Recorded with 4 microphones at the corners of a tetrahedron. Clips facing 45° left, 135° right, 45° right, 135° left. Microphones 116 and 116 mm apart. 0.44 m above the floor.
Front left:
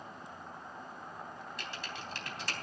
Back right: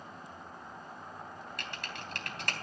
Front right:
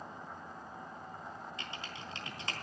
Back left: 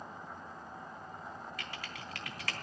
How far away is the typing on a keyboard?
About 3.5 m.